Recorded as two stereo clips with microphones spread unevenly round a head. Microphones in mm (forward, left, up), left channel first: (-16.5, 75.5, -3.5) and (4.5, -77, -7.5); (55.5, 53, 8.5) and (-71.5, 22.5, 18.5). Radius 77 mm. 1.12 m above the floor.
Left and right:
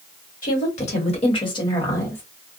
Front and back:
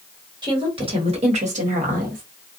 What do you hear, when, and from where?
0.4 s a woman speaking: 135° left, 1.6 m; by 2.2 s 175° left, 1.3 m